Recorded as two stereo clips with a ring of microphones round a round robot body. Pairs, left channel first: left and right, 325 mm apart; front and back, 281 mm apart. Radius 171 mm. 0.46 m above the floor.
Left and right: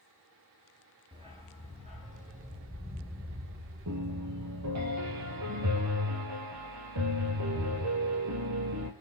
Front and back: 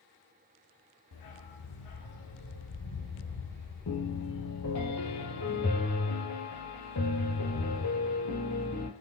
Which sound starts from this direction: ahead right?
A piano, at 3.9 s.